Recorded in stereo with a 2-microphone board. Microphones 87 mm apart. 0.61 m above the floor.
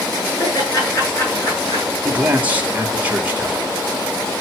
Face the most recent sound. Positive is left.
turn(degrees=-20)  # may be behind; listen again after turning